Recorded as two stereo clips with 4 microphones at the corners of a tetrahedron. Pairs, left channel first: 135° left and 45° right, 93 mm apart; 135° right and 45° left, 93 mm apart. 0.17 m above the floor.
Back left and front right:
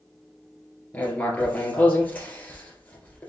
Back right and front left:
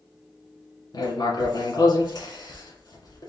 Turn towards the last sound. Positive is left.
turn(degrees=-155)